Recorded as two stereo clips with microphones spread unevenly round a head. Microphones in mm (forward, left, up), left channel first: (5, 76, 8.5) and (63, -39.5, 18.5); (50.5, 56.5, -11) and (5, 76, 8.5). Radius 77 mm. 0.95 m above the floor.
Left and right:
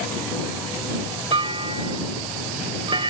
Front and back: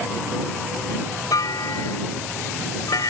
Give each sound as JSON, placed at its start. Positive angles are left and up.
{"t": 1.3, "sound": "a clunk", "azimuth_deg": -15}